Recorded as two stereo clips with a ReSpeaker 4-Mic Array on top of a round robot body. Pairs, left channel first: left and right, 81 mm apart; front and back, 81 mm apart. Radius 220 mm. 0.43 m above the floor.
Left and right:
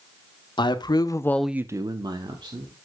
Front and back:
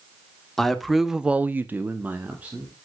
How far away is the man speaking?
About 1.4 m.